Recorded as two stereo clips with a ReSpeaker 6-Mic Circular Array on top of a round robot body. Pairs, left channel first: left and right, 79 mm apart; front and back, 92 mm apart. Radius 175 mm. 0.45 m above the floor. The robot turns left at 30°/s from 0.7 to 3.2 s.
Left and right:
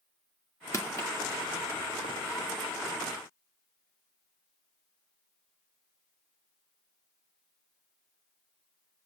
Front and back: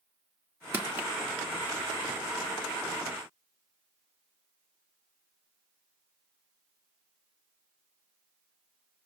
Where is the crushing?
120° left, 1.9 m; by 1.1 s 110° left, 1.9 m.